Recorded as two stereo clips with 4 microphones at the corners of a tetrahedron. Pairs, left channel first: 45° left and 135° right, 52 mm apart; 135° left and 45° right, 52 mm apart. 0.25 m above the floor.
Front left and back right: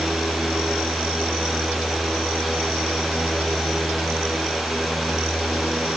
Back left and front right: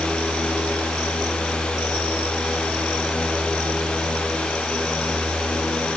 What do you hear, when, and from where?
Only background noise.